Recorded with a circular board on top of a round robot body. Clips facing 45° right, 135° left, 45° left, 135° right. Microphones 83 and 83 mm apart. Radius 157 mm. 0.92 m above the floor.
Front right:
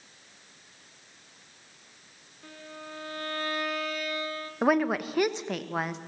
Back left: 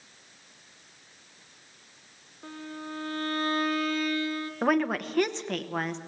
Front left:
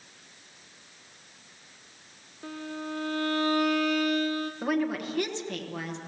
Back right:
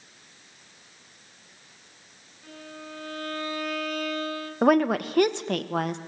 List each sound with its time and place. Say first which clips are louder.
2.4 s a violin: back left 5 dB, front left 6 dB; 75° left, 1.5 m
4.6 s a woman speaking: front right 1 dB, back right 10 dB; 125° right, 1.3 m